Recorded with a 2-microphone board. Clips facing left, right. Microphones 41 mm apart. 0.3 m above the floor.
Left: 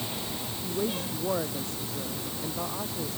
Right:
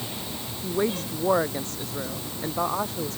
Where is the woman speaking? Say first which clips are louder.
Right 5 dB; 65° right (ahead or behind).